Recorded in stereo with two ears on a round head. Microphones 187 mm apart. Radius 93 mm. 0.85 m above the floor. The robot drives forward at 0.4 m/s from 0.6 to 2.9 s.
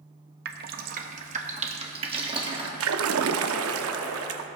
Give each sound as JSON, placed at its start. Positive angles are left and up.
{"t": 0.5, "sound": "dripping", "side_deg": -50, "distance_m": 0.7}
{"t": 2.8, "sound": "a splash", "side_deg": -75, "distance_m": 0.7}